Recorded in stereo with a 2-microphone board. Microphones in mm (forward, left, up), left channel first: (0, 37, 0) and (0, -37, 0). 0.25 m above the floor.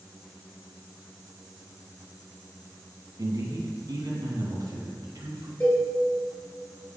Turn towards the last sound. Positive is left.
turn(degrees=25)  # may be behind; listen again after turning